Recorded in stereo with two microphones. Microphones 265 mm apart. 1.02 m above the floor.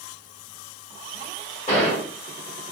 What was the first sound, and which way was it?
A gunshot, 30° left (ahead or behind).